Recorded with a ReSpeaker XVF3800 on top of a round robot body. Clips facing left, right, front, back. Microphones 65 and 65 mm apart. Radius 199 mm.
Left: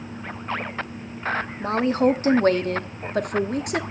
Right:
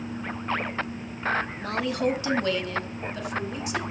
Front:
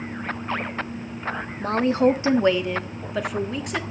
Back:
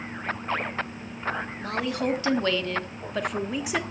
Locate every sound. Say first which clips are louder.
1.6 s a woman speaking: left 11 dB, front 10 dB; 35° left, 1.5 m; by 3.8 s 100° left, 1.8 m